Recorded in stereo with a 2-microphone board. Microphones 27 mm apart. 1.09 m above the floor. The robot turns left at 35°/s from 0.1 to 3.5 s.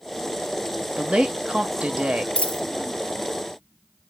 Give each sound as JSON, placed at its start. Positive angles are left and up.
{"t": 1.0, "sound": "a woman speaking", "azimuth_deg": -60, "distance_m": 0.8}
{"t": 2.4, "sound": "a dropped coin", "side_deg": 45, "distance_m": 0.5}